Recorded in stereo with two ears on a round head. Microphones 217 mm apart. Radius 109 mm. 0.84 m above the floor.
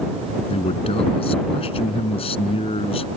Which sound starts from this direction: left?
A man speaking, at 0.5 s.